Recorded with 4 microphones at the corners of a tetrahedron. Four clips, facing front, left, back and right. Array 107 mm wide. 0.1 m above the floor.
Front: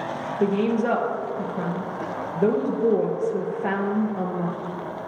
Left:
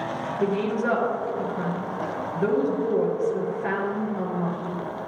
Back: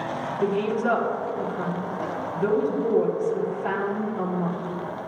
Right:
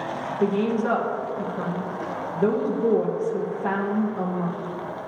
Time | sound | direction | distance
0.4 | a woman speaking | 5° right | 2 m